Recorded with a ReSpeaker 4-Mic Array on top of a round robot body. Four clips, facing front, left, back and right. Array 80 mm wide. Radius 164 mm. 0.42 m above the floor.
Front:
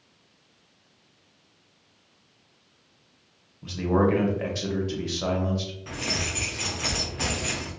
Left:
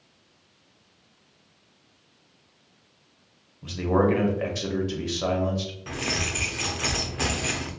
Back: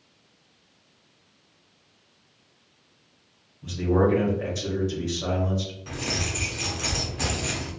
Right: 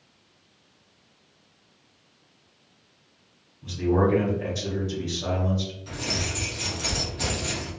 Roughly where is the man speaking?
Ahead left.